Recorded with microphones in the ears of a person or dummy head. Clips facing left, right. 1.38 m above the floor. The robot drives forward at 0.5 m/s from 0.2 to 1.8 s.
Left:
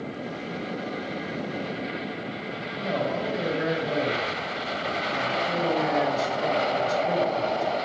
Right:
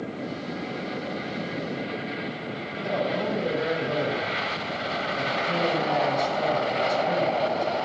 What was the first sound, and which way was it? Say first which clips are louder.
A man speaking: right 1 dB; 85° left.